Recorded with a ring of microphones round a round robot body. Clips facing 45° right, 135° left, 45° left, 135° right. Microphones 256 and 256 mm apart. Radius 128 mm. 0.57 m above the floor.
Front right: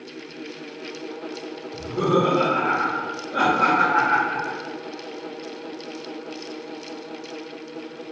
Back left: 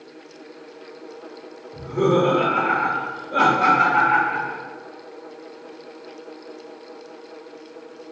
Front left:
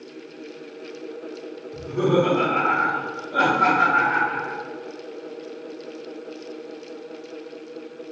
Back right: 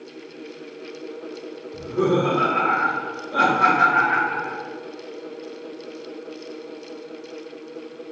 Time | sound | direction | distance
1.7 | laughter | 85° left | 1.4 m